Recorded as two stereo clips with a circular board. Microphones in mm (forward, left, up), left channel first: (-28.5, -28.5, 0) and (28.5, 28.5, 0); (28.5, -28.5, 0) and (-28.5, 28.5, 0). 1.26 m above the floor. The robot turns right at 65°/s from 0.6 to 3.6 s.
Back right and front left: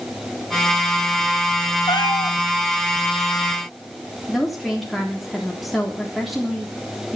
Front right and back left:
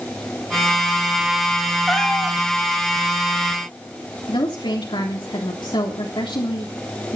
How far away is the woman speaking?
About 3.5 m.